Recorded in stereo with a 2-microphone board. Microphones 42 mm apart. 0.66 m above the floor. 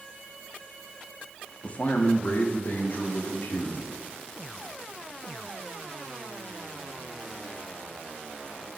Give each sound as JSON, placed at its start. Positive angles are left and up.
{"t": 1.6, "sound": "a man speaking", "side_deg": 30, "distance_m": 1.1}